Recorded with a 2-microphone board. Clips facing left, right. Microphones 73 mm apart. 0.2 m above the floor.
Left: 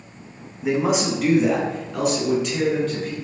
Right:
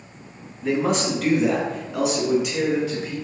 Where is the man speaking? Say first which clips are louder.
Left 1 dB; 15° left (ahead or behind), 1.3 m; by 3.1 s 10° right (ahead or behind), 2.5 m.